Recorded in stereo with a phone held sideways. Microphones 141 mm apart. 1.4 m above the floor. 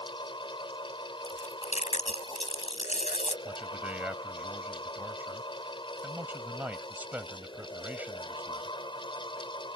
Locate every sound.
0.0 s a fan: 35° left (ahead or behind)
1.2 s chewing: 55° left (ahead or behind)
3.5 s a man speaking: 10° right (ahead or behind)